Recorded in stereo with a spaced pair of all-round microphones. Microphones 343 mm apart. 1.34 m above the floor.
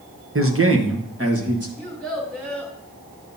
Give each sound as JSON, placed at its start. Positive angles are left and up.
{"t": 0.3, "sound": "a man speaking", "side_deg": -40, "distance_m": 0.9}
{"t": 1.8, "sound": "a child speaking", "side_deg": 0, "distance_m": 3.5}